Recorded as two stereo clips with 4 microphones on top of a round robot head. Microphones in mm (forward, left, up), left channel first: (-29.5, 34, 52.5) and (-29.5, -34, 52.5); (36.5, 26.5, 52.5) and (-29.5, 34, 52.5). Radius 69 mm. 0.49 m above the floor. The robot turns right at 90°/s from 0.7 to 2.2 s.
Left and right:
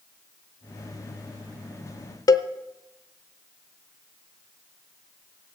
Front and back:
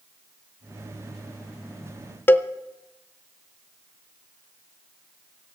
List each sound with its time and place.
2.3 s a cowbell: 55° left, 0.7 m